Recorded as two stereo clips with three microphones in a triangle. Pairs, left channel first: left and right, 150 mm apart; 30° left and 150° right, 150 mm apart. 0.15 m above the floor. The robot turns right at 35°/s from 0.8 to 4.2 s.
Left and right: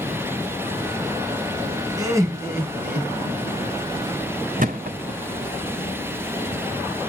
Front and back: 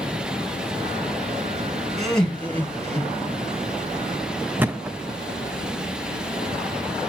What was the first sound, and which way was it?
Laughter, 55° right.